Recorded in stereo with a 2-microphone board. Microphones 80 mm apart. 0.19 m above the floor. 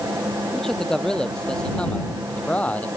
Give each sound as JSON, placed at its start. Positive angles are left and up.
{"t": 0.5, "sound": "a man speaking", "side_deg": 5}